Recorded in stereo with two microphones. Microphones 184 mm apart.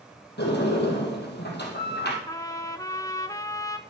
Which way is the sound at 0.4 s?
65° left (ahead or behind).